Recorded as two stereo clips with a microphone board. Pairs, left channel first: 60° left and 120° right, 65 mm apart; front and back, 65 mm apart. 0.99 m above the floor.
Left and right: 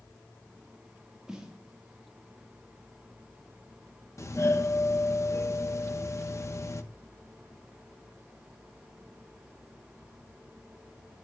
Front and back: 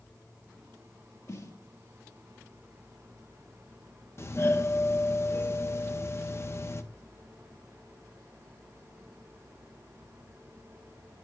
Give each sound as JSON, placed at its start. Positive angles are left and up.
{"t": 1.3, "sound": "a snare drum", "azimuth_deg": -40, "distance_m": 1.5}
{"t": 4.2, "sound": "a doorbell", "azimuth_deg": 35, "distance_m": 0.9}